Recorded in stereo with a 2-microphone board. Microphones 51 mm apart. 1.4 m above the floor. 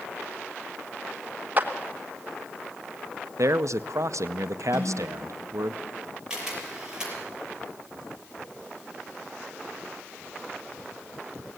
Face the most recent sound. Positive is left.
turn(degrees=-10)  # may be behind; listen again after turning